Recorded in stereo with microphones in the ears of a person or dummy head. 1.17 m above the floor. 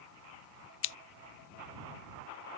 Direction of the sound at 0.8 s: 60° left (ahead or behind).